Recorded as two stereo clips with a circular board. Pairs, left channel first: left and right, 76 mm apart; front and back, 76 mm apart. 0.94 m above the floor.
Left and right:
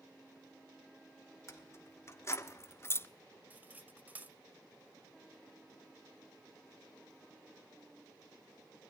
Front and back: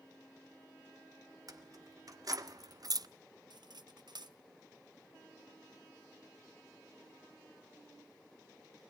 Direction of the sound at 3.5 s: 160° right.